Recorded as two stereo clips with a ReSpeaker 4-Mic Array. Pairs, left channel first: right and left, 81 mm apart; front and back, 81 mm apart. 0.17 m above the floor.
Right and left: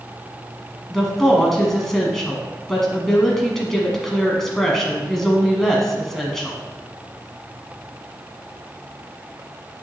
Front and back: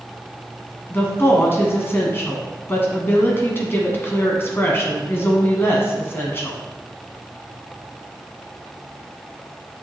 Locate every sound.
0.9 s a woman speaking: 10° right, 1.3 m